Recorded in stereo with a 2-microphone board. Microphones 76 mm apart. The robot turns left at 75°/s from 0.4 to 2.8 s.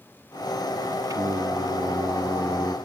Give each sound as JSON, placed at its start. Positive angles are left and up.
{"t": 1.1, "sound": "singing", "azimuth_deg": -55, "distance_m": 0.7}